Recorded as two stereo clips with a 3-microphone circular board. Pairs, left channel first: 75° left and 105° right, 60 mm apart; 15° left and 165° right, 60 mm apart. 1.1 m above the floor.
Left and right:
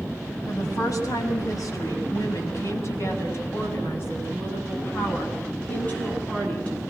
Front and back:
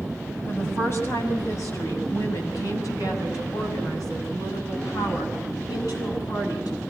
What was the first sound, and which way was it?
A woman speaking, 65° left.